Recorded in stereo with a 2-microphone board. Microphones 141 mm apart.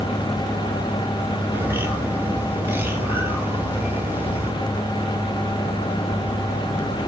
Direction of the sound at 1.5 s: 15° right (ahead or behind).